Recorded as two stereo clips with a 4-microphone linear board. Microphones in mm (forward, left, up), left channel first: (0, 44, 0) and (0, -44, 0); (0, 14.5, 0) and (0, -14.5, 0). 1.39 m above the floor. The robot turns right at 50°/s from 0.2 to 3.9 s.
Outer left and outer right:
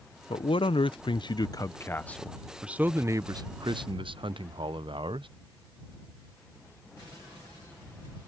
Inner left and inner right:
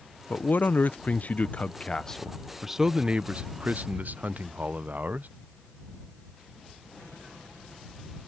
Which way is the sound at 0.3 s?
75° left.